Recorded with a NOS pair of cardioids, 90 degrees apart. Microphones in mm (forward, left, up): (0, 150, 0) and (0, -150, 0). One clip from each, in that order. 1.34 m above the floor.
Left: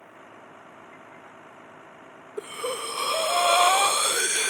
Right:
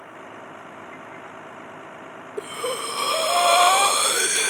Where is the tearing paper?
No tearing paper in this recording.